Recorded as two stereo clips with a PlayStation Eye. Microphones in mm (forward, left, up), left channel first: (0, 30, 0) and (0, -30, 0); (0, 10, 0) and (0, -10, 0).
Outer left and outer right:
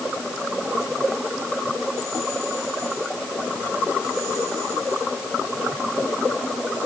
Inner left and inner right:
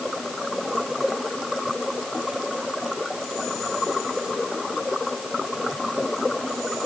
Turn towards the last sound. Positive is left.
No sound to turn to.